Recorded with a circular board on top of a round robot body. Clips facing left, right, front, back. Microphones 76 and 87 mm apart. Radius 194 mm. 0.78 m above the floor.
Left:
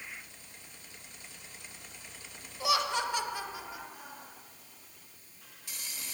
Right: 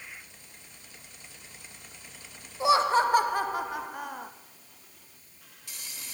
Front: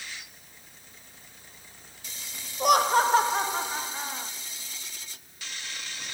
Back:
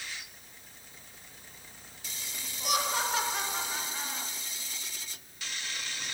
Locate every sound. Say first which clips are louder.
2.6 s laughter: right 8 dB, front 10 dB; 30° right, 1.4 m; by 4.3 s 70° right, 1.7 m